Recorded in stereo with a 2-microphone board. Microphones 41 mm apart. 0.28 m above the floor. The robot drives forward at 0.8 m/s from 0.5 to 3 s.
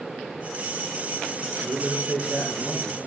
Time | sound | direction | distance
1.6 | a man speaking | 60° right (ahead or behind) | 4 m